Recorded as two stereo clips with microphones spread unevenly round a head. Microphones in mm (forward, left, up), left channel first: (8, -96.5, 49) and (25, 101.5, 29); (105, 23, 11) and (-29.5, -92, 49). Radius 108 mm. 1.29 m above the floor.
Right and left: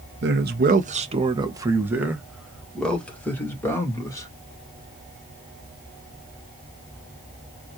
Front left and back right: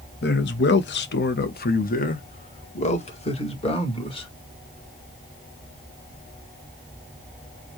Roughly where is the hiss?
I don't hear a hiss.